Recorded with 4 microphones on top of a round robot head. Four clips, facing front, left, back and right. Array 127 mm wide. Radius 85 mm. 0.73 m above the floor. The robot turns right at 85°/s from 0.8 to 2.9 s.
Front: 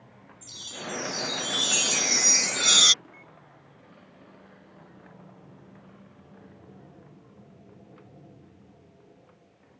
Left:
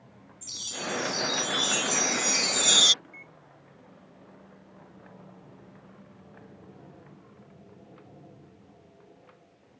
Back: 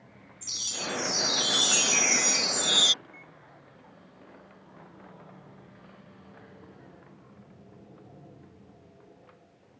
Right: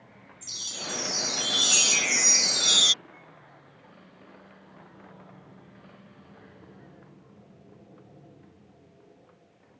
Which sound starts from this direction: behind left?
A microwave, at 3.0 s.